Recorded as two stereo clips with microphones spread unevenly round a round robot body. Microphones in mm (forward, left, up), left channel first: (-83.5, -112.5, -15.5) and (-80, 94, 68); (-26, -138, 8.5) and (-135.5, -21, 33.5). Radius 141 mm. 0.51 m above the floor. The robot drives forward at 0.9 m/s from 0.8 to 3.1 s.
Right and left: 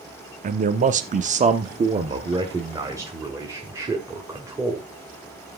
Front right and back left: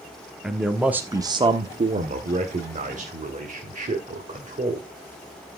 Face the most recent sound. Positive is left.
turn(degrees=175)